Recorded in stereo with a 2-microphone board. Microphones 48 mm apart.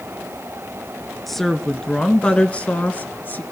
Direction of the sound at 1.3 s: 5° left (ahead or behind).